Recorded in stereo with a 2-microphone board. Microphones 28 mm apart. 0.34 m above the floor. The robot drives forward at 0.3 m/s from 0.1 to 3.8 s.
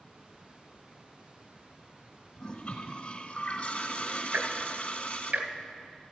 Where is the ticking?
75° right (ahead or behind), 0.9 m.